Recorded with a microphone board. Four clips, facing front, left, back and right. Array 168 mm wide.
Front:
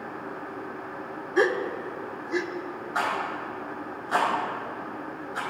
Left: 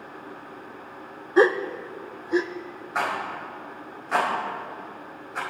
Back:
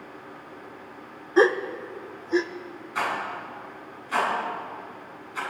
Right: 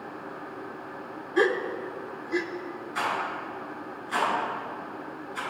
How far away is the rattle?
About 4.5 m.